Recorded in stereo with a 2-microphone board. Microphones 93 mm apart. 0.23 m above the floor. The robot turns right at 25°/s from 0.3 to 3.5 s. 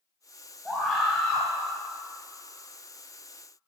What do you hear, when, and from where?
0.7 s a scream: centre (ahead or behind), 1.4 m; by 1.5 s 10° left (ahead or behind), 1.4 m